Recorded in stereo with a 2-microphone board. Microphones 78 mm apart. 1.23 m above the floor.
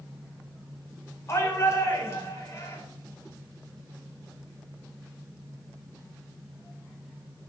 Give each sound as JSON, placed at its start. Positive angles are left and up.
{"t": 1.3, "sound": "a shout", "side_deg": 35, "distance_m": 4.5}